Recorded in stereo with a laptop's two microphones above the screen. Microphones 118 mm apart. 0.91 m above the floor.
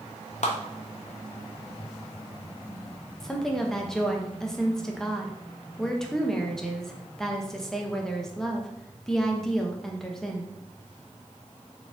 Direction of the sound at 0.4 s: 65° left (ahead or behind).